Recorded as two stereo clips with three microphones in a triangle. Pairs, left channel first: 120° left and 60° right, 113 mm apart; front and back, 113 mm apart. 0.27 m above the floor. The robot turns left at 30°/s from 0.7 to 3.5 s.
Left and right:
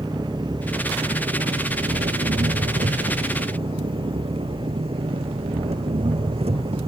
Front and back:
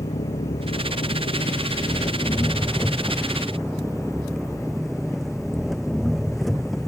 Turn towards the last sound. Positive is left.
turn(degrees=-90)